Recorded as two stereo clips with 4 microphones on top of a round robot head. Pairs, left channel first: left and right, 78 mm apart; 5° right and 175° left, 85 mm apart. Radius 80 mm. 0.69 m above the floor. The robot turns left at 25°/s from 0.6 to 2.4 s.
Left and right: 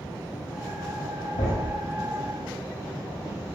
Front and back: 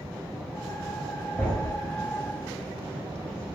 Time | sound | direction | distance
1.4 | a thud | 70° left | 1.4 m